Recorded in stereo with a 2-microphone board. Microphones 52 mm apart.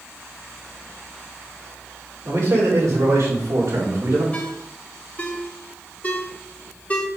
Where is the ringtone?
25° left (ahead or behind), 1.0 m.